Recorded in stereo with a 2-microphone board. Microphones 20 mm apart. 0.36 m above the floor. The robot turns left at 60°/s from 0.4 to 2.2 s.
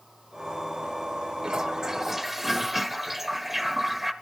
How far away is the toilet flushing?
About 0.6 m.